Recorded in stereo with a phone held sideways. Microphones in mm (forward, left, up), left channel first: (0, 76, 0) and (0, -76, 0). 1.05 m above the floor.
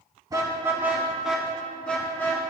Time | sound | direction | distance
0.3 | a car horn | 25° right (ahead or behind) | 3.5 m